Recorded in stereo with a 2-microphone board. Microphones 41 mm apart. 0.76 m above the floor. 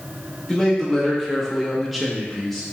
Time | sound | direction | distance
0.5 | a man speaking | centre (ahead or behind) | 2.0 m